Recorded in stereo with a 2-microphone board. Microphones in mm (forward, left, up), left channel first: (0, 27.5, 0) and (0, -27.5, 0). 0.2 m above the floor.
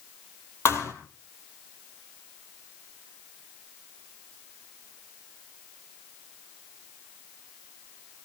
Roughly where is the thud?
Left.